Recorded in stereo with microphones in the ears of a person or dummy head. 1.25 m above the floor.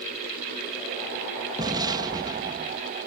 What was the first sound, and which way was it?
An explosion, 25° right (ahead or behind).